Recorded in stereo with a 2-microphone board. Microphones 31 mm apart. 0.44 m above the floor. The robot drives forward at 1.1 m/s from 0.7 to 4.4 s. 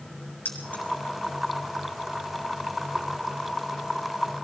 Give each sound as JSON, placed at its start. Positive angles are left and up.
{"t": 0.5, "sound": "keys jangling", "side_deg": 65, "distance_m": 4.0}